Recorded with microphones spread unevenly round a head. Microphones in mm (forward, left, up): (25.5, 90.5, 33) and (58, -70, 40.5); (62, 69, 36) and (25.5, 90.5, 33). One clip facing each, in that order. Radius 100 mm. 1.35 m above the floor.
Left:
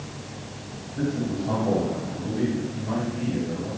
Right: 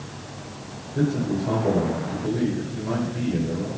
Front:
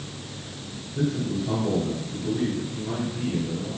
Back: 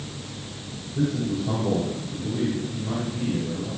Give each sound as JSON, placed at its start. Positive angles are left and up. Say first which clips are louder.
{"t": 0.9, "sound": "a man speaking", "louder": "right 3 dB, back 1 dB", "azimuth_deg": -125, "distance_m": 3.0}